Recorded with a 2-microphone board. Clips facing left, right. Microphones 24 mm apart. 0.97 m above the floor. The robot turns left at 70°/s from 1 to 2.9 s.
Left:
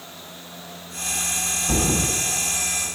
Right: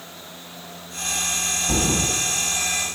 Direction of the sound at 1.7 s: 5° left (ahead or behind).